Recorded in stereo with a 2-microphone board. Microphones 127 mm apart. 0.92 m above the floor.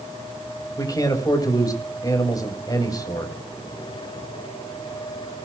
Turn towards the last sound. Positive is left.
turn(degrees=30)  # may be behind; listen again after turning